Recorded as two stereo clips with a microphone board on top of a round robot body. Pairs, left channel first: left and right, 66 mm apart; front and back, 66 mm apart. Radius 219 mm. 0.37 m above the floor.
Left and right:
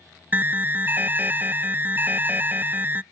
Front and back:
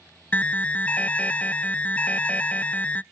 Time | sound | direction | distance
0.3 | an alarm | 50° right | 0.6 m